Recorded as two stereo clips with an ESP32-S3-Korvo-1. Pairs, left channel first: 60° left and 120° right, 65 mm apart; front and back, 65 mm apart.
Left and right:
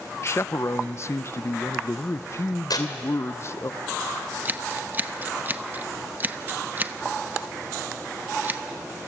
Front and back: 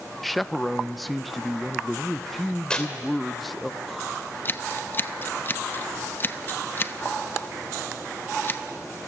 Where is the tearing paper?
75° left, 3 m.